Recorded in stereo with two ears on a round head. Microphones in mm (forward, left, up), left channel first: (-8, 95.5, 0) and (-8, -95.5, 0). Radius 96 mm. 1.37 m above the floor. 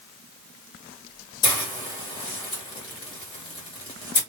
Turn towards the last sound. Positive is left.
turn(degrees=25)  # may be behind; listen again after turning